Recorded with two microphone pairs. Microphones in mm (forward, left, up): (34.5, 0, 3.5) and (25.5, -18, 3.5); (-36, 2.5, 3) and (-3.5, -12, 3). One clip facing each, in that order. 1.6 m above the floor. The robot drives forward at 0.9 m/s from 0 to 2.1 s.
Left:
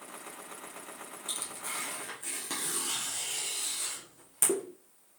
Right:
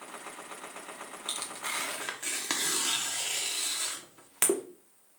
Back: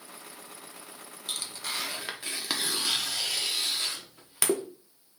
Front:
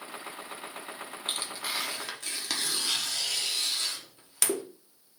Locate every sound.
1.3 s tearing paper: 65° right, 0.8 m; by 4.6 s 135° right, 0.9 m